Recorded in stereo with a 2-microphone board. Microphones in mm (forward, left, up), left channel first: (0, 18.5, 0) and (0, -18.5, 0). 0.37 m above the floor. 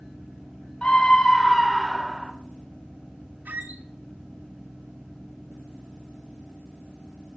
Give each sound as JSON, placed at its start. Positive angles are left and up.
{"t": 0.8, "sound": "a scream", "side_deg": 30, "distance_m": 1.6}
{"t": 3.5, "sound": "a squeak", "side_deg": -55, "distance_m": 1.5}